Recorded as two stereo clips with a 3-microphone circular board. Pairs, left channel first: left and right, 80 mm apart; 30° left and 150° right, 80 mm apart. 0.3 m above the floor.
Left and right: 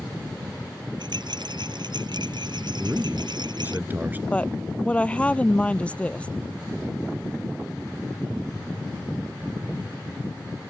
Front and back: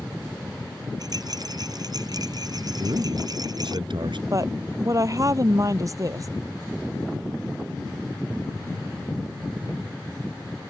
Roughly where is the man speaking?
Behind right.